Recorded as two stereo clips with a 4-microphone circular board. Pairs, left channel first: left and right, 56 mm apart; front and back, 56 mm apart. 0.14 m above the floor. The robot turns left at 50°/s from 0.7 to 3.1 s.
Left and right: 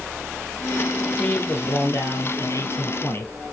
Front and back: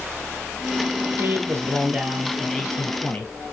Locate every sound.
1.2 s a man speaking: 155° left, 3.5 m; by 3.3 s 55° left, 3.5 m